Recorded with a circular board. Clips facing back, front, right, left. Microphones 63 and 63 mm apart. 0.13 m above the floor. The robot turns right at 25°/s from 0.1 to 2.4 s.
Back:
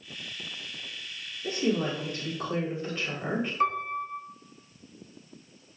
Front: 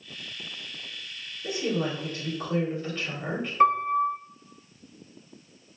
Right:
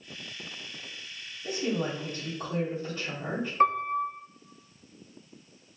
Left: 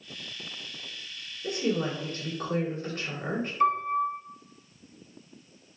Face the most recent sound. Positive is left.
turn(degrees=-50)